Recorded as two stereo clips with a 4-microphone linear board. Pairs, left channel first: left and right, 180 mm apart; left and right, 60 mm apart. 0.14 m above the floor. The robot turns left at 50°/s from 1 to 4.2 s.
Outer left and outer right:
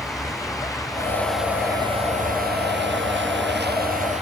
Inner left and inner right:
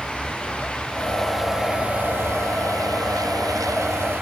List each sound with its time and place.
0.0 s a vehicle: 20° left; by 4.2 s 140° right